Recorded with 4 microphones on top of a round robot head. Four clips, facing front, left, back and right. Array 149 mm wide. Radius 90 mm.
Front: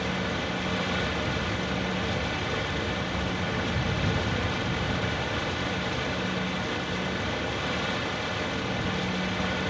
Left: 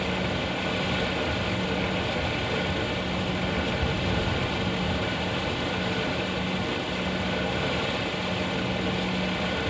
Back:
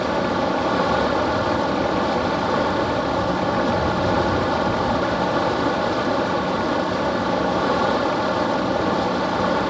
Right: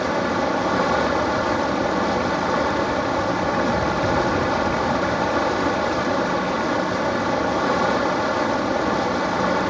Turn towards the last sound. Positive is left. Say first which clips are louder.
# right 8 dB, back 10 dB
turn(degrees=-140)